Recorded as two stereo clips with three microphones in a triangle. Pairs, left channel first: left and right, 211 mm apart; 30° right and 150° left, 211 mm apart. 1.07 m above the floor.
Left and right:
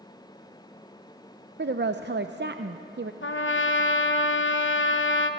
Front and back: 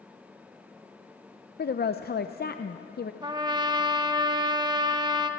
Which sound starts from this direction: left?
A trumpet, at 3.2 s.